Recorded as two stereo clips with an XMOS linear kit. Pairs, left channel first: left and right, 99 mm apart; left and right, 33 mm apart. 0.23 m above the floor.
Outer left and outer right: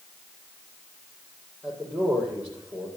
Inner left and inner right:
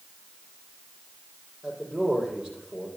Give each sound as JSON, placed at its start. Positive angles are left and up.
{"t": 1.6, "sound": "a man speaking", "side_deg": -15, "distance_m": 7.5}